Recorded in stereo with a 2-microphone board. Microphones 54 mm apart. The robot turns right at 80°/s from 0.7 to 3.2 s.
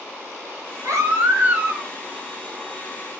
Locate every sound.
0.8 s a baby crying: 80° right, 1.0 m; by 1.9 s 5° left, 1.0 m